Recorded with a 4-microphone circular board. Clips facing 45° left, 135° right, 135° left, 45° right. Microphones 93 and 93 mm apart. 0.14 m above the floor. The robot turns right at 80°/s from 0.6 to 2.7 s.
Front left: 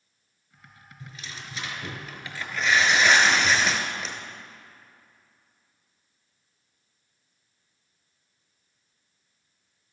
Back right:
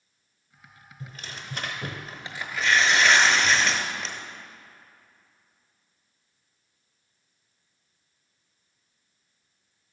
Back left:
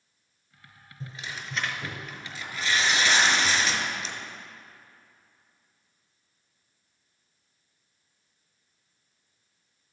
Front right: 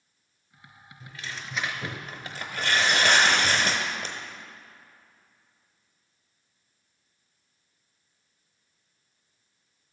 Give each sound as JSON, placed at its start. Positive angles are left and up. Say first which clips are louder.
{"t": 1.0, "sound": "tearing paper", "louder": "back right 1 dB, back left 1 dB", "azimuth_deg": 180, "distance_m": 1.0}